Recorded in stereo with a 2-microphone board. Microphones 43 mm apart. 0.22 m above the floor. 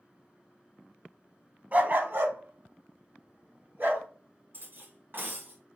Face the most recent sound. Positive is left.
turn(degrees=-50)  # may be behind; listen again after turning